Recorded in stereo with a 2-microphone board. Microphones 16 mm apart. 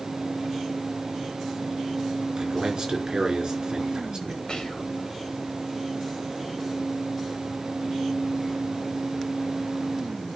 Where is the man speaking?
50° right (ahead or behind), 4 m.